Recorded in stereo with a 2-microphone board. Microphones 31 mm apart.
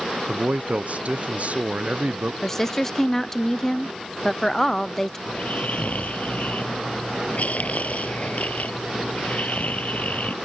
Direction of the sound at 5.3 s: 60° left (ahead or behind).